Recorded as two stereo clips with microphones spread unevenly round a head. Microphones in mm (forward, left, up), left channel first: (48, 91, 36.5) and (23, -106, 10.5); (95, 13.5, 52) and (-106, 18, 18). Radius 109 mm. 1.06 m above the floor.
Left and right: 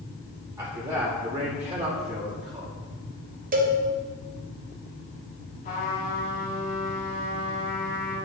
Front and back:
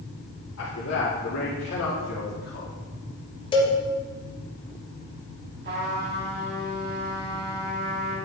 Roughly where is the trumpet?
Behind left.